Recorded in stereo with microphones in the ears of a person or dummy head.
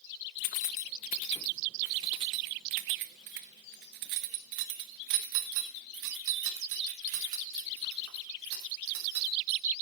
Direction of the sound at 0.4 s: 45° left (ahead or behind).